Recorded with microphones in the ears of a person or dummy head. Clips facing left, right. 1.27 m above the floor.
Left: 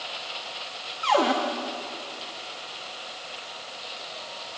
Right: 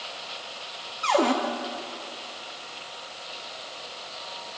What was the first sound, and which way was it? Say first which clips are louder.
A cupboard door: even; 5° left (ahead or behind).